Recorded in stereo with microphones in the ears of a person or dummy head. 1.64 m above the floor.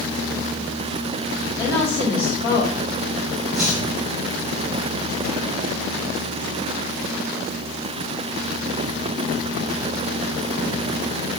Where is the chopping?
Centre (ahead or behind), 4 m.